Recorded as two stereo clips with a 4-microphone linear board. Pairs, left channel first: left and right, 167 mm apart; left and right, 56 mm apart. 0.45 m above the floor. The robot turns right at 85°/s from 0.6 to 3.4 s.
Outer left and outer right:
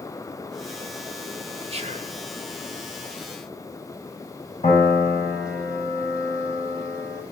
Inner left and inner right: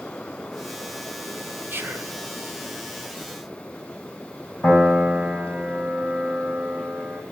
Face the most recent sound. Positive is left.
turn(degrees=45)  # may be behind; listen again after turning